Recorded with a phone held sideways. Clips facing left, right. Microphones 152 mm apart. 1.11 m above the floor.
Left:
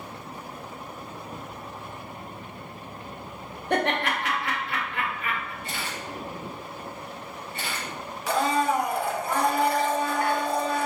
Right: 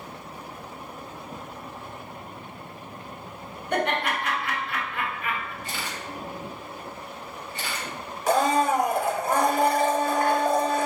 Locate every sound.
3.7 s laughter: 80° left, 1.5 m
5.6 s a camera shutter: 60° left (ahead or behind), 1.8 m
8.3 s a blender: 45° right (ahead or behind), 0.6 m